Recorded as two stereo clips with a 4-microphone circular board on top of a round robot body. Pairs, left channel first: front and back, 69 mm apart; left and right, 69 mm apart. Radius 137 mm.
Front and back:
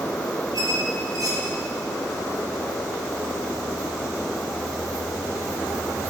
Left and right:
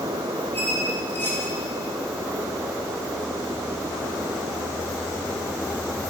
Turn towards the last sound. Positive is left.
turn(degrees=150)